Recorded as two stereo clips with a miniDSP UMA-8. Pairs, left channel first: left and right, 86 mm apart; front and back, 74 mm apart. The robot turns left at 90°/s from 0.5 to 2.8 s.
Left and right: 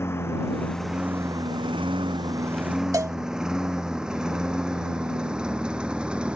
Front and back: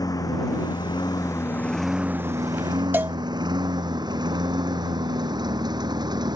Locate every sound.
0.0 s a lawn mower: 30° left; by 6.4 s 170° right
2.9 s a cowbell: 125° right